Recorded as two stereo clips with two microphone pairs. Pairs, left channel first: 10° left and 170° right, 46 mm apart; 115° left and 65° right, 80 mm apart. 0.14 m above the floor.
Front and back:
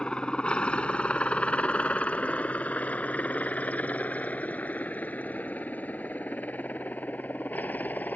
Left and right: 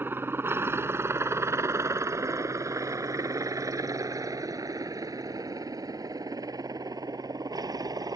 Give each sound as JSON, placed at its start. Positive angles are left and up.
{"t": 0.0, "sound": "a helicopter", "azimuth_deg": -35}